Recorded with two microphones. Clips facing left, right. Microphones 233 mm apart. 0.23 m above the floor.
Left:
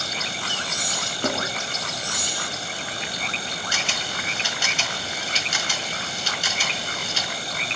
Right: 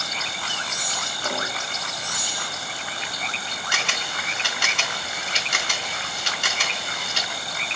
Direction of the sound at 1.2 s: 60° left (ahead or behind).